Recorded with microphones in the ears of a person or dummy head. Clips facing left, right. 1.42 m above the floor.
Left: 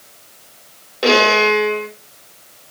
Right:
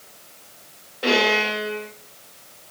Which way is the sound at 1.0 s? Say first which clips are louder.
Left 7 dB; 85° left.